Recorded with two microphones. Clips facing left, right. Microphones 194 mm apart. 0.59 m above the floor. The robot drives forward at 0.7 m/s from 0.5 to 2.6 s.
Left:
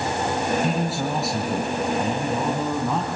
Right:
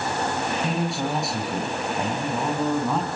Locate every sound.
0.6 s a man speaking: centre (ahead or behind), 2.5 m